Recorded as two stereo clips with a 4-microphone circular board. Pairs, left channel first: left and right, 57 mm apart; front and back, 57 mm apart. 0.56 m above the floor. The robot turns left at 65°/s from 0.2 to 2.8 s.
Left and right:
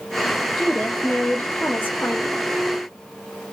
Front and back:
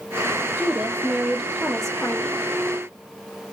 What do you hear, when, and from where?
0.6 s a woman speaking: 165° left, 1.1 m; by 2.4 s 45° left, 1.1 m